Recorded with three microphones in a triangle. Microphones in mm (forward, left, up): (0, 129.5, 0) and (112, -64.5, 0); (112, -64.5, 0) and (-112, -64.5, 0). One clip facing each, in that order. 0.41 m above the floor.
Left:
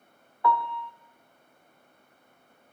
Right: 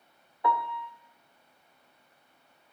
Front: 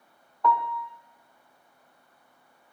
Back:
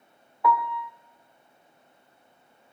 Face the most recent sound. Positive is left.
turn(degrees=-105)